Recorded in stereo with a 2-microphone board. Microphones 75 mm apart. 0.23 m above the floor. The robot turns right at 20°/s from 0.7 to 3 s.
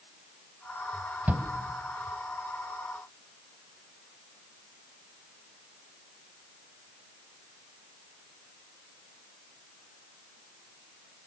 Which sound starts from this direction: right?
A shout, at 1.3 s.